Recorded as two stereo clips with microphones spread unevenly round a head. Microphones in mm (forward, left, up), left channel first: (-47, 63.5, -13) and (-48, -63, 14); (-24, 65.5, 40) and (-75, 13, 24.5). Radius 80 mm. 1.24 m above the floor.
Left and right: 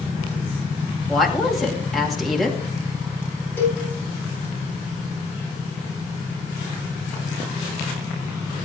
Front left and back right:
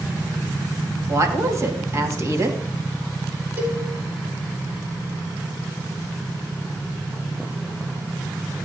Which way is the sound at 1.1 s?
Straight behind.